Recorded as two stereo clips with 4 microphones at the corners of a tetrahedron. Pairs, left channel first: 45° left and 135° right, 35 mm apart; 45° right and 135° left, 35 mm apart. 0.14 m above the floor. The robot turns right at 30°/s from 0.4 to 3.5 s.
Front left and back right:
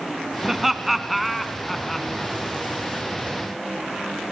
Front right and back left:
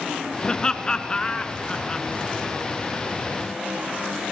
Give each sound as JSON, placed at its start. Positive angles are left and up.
{"t": 0.4, "sound": "laughter", "azimuth_deg": -65, "distance_m": 1.2}